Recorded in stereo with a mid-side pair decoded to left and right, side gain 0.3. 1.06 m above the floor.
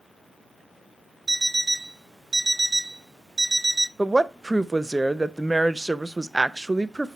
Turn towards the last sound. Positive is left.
turn(degrees=-25)